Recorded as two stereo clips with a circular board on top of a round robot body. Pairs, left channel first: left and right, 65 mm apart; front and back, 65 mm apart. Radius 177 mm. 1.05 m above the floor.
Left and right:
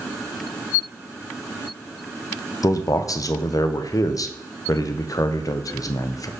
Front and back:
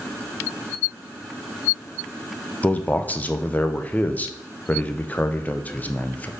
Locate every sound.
2.6 s a man speaking: 65° left, 0.7 m